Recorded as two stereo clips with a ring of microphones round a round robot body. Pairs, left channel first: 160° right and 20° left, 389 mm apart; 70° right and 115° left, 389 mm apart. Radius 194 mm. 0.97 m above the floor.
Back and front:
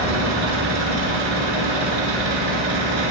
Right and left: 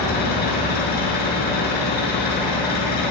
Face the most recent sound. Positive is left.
turn(degrees=0)